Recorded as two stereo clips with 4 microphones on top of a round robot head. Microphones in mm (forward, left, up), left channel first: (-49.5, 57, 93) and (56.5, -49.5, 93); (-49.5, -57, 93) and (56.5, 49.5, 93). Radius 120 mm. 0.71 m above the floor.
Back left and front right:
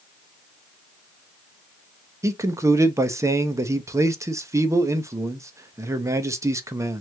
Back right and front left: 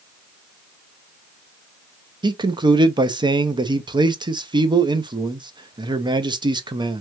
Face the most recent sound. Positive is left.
turn(degrees=10)